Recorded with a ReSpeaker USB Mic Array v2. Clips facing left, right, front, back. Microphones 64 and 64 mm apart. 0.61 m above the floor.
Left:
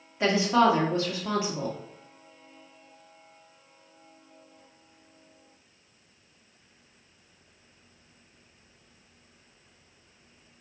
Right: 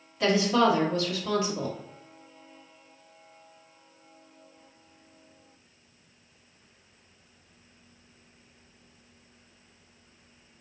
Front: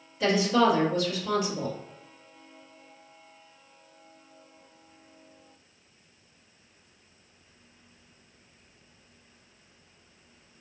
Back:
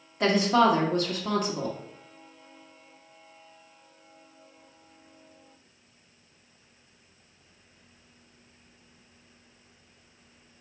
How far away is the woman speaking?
About 1.2 m.